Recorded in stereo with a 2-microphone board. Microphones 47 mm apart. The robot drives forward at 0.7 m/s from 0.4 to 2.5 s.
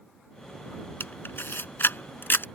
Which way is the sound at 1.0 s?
55° left (ahead or behind).